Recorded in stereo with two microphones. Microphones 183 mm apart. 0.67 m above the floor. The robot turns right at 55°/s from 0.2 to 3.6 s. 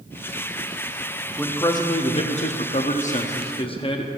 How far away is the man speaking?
About 0.7 m.